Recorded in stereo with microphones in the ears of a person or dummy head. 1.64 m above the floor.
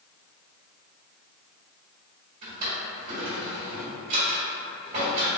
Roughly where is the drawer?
Right.